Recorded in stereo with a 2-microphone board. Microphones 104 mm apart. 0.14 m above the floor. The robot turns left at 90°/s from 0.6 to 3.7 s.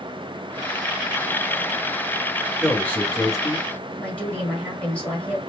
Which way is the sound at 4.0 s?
10° left (ahead or behind).